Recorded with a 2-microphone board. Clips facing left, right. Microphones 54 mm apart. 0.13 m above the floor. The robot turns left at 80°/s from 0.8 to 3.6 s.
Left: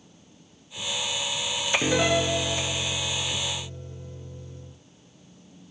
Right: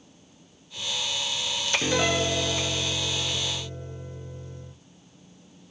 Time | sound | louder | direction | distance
1.8 | a piano | left 2 dB | 20° left | 0.8 m